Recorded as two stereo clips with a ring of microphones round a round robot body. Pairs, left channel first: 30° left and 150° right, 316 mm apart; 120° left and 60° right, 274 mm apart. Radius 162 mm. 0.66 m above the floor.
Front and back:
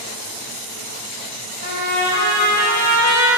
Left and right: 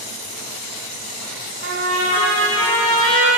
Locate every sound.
1.6 s a trumpet: 25° right, 1.6 m